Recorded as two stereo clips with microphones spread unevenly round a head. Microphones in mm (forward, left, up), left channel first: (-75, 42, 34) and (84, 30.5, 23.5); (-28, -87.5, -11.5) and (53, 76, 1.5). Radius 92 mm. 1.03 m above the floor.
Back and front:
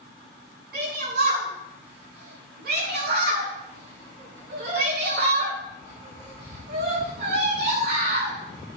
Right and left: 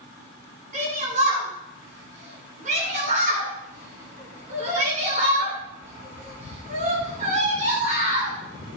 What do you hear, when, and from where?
0.7 s a shout: 15° left, 9.5 m